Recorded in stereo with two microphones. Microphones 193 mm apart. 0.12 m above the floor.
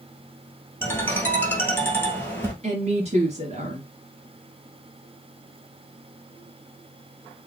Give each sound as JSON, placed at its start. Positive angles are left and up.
{"t": 0.8, "sound": "a ringtone", "side_deg": 10, "distance_m": 1.9}
{"t": 2.6, "sound": "a woman speaking", "side_deg": -35, "distance_m": 1.9}